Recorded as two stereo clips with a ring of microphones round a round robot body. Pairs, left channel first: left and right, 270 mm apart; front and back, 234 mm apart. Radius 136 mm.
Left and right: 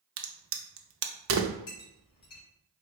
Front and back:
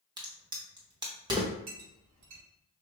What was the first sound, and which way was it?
A crack, 110° right.